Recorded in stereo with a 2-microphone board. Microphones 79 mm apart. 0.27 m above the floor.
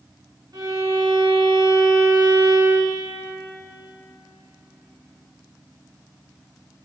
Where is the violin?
55° right (ahead or behind), 2.5 m.